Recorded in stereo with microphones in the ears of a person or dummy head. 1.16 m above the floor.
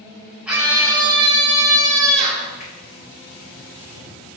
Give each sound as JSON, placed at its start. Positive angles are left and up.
{"t": 0.5, "sound": "a scream", "side_deg": -5, "distance_m": 1.4}
{"t": 2.6, "sound": "a finger snap", "side_deg": 40, "distance_m": 2.5}